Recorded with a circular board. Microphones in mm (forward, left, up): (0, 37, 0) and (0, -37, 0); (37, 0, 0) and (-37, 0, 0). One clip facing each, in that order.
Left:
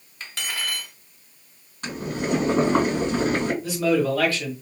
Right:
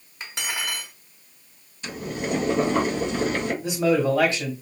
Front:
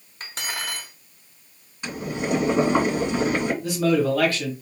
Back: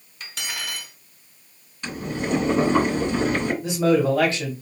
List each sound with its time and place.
0.2 s cutlery clinking: 30° right, 0.9 m
1.8 s boiling: 75° left, 3 m
3.6 s a man speaking: 140° right, 1.3 m